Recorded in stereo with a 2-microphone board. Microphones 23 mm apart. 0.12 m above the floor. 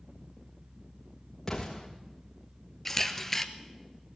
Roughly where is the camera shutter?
Centre.